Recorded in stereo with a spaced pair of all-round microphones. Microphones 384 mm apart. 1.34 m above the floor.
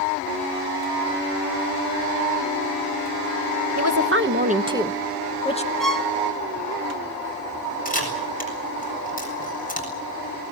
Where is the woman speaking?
45° right (ahead or behind), 1.2 m; by 5.7 s 20° left (ahead or behind), 1.3 m.